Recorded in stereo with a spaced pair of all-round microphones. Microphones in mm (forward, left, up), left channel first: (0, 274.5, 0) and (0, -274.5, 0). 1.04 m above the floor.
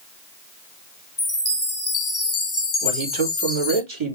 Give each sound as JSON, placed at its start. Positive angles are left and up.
{"t": 1.2, "sound": "a chime", "side_deg": 45, "distance_m": 0.9}
{"t": 2.8, "sound": "a man speaking", "side_deg": -55, "distance_m": 2.5}